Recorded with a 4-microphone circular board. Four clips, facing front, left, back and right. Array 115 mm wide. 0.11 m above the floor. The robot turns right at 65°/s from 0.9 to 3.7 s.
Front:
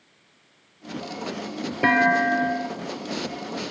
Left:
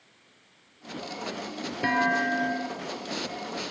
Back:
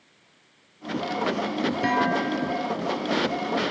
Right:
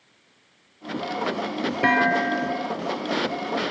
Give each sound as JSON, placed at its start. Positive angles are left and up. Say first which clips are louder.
{"t": 1.8, "sound": "a clunk", "louder": "right 4 dB, front 6 dB", "azimuth_deg": -40, "distance_m": 1.4}